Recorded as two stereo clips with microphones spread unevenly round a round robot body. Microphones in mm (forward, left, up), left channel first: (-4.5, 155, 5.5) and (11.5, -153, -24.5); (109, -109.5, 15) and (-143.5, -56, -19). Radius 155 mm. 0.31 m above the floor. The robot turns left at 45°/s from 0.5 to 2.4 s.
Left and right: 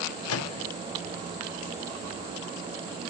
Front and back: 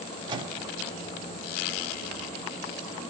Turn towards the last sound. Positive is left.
turn(degrees=25)